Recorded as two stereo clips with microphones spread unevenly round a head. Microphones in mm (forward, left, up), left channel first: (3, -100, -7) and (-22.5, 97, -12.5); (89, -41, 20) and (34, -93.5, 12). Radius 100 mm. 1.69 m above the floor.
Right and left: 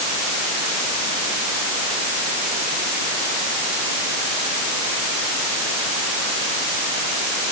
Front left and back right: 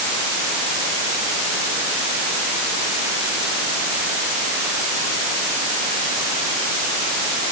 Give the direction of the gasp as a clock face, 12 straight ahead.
I don't hear a gasp.